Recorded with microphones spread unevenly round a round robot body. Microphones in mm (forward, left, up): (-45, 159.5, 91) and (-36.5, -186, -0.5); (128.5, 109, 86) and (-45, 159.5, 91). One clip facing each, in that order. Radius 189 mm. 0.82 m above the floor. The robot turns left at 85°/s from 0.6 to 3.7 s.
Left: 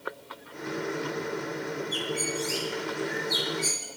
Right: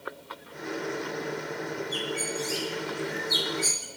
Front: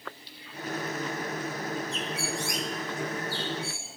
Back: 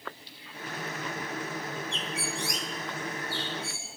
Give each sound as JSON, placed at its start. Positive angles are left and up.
{"t": 1.9, "sound": "a bird", "azimuth_deg": 70, "distance_m": 1.0}